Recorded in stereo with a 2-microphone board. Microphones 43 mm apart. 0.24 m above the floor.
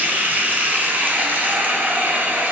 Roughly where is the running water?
Right.